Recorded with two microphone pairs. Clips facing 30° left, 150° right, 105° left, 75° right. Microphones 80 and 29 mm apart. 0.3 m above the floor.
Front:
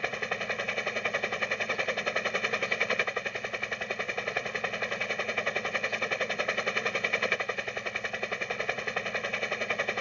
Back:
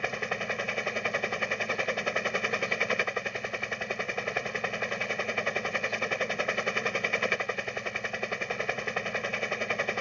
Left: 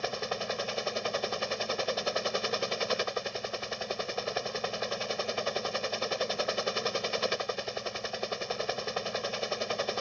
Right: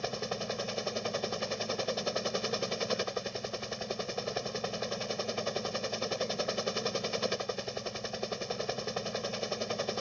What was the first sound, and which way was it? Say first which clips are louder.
A helicopter: back 1 dB, left 2 dB; 125° left.